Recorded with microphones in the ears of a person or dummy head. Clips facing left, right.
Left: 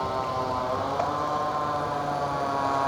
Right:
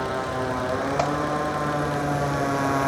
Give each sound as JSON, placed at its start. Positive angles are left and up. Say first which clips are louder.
{"t": 0.0, "sound": "a motorcycle", "louder": "right 2 dB", "side_deg": -20}